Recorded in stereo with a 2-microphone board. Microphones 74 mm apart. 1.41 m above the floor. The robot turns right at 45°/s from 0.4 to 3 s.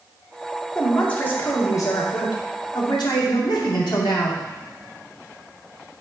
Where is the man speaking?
Straight ahead, 1.9 m; by 4.4 s 105° left, 1.9 m.